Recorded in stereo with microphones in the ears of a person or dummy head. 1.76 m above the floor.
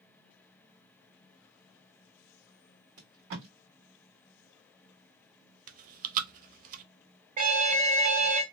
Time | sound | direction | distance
3.0 | tape being pulled | 50° right (ahead or behind) | 1.7 m
5.7 | chewing | 45° right (ahead or behind) | 0.5 m
7.4 | an alarm | 45° right (ahead or behind) | 0.8 m